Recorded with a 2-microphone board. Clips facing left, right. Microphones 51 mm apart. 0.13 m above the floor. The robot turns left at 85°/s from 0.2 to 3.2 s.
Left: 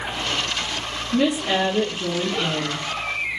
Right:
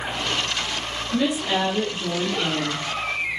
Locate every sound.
1.1 s a woman speaking: 125° left, 2.5 m; by 2.8 s 20° right, 2.5 m